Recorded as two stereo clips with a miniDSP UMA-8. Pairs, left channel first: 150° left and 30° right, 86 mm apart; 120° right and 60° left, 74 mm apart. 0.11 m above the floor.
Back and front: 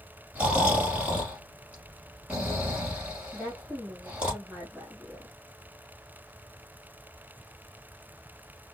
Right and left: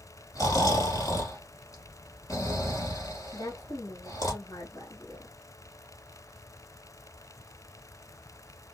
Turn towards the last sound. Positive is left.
turn(degrees=-115)